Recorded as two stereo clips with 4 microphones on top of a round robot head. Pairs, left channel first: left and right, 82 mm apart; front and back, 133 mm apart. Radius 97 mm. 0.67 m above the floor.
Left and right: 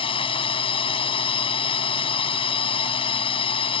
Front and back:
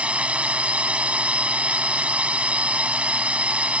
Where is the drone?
100° left.